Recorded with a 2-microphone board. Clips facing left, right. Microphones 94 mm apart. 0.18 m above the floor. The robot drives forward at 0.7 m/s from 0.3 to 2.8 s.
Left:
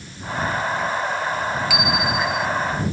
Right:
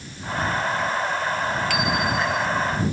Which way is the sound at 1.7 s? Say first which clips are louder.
Left 1 dB; 5° left (ahead or behind).